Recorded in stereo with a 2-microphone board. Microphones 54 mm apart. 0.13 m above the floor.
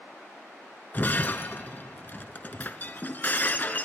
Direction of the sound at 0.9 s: 35° left (ahead or behind).